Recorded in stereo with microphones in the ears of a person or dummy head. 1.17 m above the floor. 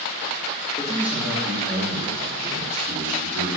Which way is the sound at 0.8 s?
5° right (ahead or behind).